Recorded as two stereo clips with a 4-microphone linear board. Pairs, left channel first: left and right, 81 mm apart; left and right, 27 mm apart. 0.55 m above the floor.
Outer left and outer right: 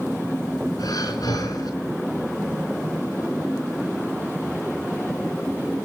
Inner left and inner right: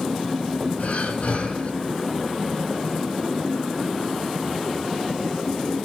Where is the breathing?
50° left (ahead or behind), 4 m.